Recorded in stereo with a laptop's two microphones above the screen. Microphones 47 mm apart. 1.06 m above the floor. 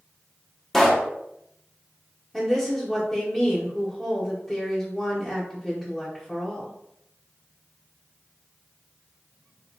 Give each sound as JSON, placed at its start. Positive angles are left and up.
{"t": 0.7, "sound": "a pop", "side_deg": 5, "distance_m": 0.5}
{"t": 2.3, "sound": "a woman speaking", "side_deg": 5, "distance_m": 1.2}